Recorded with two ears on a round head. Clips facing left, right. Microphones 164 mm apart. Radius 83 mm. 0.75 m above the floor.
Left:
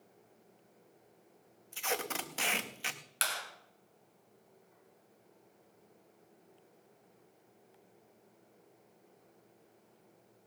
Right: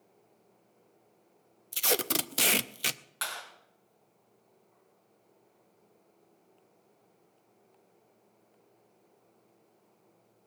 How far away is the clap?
About 3 m.